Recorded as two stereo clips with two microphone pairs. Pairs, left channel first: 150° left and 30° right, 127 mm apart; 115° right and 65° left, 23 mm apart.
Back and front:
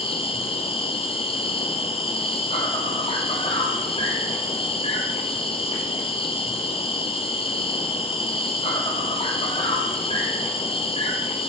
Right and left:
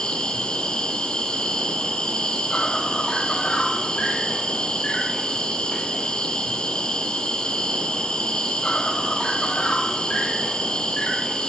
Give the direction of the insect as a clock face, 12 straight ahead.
6 o'clock.